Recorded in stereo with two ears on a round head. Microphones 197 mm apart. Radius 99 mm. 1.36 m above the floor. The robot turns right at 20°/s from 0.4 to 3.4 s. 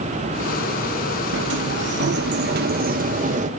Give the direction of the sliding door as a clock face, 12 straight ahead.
3 o'clock.